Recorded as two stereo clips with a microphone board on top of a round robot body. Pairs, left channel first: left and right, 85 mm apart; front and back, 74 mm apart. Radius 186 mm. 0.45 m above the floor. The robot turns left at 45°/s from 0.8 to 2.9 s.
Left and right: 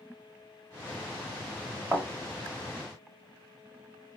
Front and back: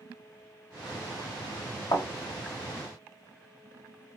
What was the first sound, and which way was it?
A thud, 10° right.